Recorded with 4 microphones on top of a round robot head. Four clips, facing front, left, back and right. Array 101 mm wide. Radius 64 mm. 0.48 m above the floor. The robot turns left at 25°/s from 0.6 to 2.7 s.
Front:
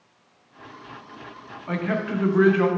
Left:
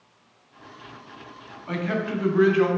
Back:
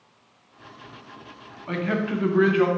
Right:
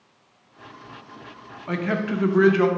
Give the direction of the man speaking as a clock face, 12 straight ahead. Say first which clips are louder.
Right 2 dB, even; 2 o'clock.